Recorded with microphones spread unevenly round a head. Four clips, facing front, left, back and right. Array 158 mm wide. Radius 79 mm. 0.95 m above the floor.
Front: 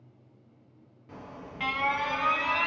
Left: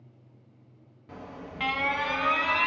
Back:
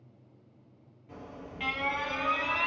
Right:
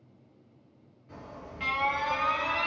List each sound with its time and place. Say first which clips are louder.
1.1 s an alarm: left 3 dB, front 1 dB; 85° left, 0.8 m